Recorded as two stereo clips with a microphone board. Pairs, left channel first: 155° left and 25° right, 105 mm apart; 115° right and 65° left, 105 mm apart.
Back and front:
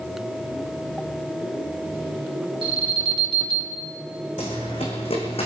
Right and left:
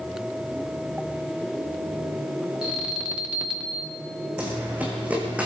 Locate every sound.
2.6 s an alarm: 15° right, 2.5 m
4.4 s running footsteps: 140° left, 3.5 m; by 5.5 s 145° left, 3 m